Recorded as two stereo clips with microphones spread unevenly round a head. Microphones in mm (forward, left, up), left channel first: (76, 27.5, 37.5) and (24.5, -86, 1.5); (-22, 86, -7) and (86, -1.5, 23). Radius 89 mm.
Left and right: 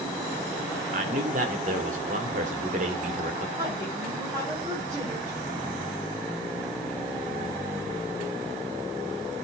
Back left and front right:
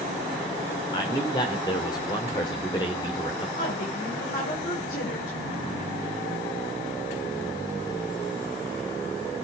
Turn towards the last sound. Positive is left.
turn(degrees=175)